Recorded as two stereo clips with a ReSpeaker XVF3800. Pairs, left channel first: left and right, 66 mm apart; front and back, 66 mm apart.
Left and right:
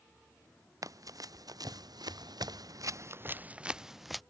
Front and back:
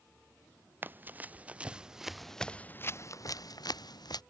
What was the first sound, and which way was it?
Running footsteps, 120° right.